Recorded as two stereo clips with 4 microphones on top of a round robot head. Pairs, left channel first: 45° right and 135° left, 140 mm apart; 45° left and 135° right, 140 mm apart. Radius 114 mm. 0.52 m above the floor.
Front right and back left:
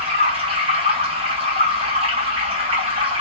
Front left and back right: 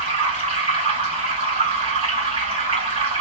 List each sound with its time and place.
0.0 s running water: straight behind, 1.8 m